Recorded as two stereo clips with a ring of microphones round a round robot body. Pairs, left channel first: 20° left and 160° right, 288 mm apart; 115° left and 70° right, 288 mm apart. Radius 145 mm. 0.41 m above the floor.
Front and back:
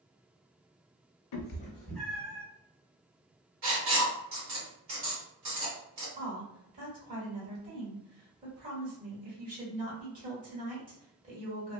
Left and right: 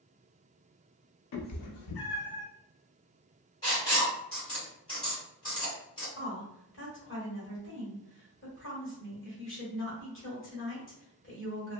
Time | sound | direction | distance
1.3 | a cat meowing | 65° left | 0.5 m
3.6 | writing | 175° right | 1.8 m
6.2 | a woman speaking | 145° left | 1.4 m